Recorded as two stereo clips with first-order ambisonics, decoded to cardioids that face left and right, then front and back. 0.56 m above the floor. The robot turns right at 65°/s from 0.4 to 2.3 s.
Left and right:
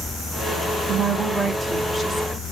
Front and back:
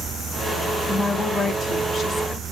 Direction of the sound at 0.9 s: 55° right.